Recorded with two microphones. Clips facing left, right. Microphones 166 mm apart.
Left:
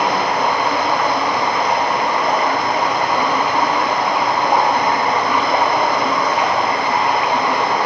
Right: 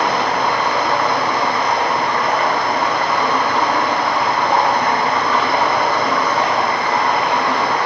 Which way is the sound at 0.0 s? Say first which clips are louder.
Even; 15° left (ahead or behind).